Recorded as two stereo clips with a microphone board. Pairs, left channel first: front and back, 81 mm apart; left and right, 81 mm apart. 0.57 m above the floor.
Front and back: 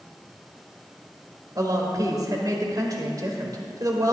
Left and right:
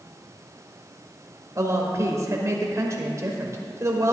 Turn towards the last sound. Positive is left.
turn(degrees=-140)